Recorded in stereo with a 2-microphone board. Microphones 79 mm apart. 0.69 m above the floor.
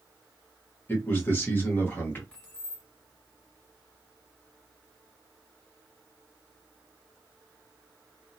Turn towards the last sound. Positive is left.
turn(degrees=15)  # may be behind; listen again after turning